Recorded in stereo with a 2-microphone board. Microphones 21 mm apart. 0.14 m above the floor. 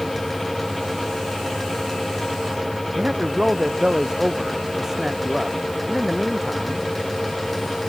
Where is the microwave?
I don't hear a microwave.